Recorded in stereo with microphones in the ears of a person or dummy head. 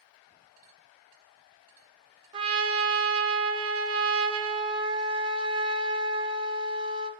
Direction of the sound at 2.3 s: 30° right (ahead or behind).